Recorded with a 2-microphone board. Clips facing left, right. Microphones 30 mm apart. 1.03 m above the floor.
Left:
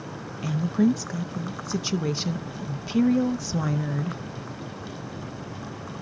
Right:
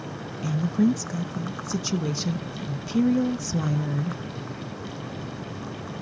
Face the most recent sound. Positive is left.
turn(degrees=15)  # may be behind; listen again after turning